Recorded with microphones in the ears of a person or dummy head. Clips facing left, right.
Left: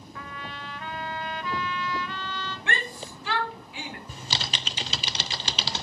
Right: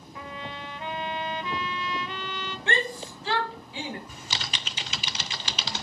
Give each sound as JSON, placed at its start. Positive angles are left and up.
{"t": 0.1, "sound": "a trumpet", "side_deg": -15, "distance_m": 0.7}
{"t": 2.7, "sound": "a shout", "side_deg": -25, "distance_m": 1.3}
{"t": 4.1, "sound": "typing on a keyboard", "side_deg": 30, "distance_m": 0.5}